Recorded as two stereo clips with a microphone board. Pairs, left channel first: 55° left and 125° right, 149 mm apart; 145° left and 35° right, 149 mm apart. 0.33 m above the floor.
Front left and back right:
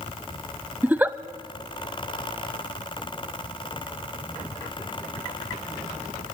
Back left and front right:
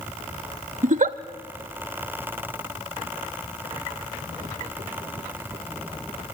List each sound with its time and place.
0.8 s a giggle: 50° right, 0.6 m